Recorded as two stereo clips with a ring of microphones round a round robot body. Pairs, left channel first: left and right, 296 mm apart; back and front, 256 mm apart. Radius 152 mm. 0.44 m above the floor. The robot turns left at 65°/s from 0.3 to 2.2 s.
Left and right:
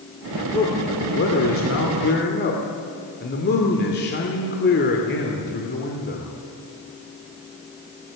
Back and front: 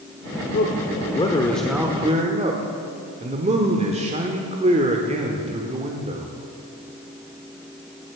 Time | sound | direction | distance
0.5 | a man speaking | 160° left | 1.5 m